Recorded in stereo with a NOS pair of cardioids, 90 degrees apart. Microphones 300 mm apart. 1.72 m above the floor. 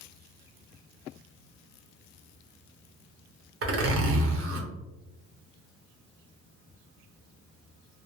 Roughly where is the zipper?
Ahead right.